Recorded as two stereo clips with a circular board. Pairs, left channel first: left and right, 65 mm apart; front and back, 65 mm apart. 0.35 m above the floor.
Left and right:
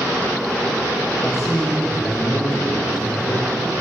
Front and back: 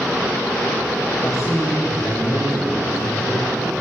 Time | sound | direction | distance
1.2 | a man speaking | 40° left | 8.5 m